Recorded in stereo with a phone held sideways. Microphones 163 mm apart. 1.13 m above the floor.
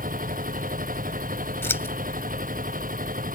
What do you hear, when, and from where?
0.0 s a machine running: 65° right (ahead or behind)
1.6 s scissors: 15° left (ahead or behind)